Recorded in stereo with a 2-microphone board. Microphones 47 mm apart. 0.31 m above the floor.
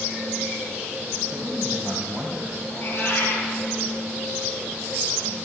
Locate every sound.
1.3 s a man speaking: 25° right (ahead or behind), 1.6 m
2.7 s a cat meowing: 50° left (ahead or behind), 3 m